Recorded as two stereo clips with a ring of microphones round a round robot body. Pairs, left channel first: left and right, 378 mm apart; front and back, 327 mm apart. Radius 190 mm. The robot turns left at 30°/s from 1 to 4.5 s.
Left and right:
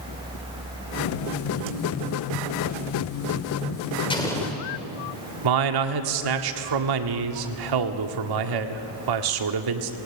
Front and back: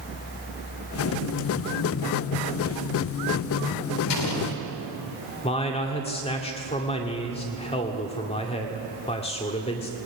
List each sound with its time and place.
4.1 s an explosion: 15° left, 3 m; by 4.6 s straight ahead, 3 m
5.4 s a man speaking: 70° right, 1.6 m